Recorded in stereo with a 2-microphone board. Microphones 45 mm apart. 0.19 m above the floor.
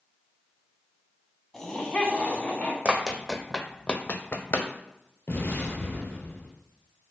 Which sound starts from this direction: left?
An explosion, at 5.3 s.